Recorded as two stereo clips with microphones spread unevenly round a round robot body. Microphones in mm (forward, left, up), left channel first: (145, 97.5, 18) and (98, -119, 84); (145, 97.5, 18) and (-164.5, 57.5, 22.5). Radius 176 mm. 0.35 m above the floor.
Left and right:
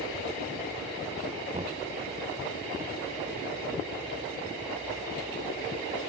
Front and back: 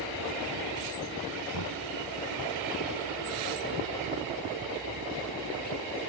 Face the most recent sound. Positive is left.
turn(degrees=-40)